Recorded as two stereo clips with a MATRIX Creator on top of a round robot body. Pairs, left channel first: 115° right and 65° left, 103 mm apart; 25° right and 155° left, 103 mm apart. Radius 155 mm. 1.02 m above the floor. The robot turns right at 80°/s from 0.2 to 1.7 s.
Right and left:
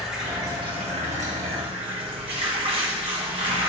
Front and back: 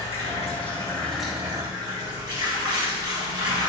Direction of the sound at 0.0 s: 15° right.